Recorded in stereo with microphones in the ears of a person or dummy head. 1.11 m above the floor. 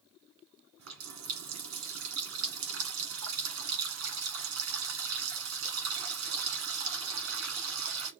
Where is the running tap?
75° right (ahead or behind), 1.3 m.